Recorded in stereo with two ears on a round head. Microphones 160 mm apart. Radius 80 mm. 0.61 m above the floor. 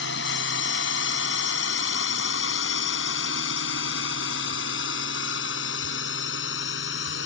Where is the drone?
70° left (ahead or behind); by 7.3 s 75° left (ahead or behind).